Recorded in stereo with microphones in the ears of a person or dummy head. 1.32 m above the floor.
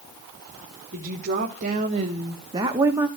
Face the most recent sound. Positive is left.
turn(degrees=-20)  # may be behind; listen again after turning